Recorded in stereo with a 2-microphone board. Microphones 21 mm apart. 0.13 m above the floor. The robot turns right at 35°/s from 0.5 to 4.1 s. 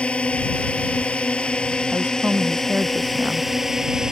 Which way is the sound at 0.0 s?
85° left.